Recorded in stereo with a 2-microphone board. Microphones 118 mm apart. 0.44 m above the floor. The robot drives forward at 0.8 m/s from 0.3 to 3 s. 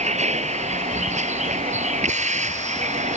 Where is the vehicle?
75° right (ahead or behind); by 3.2 s 80° right.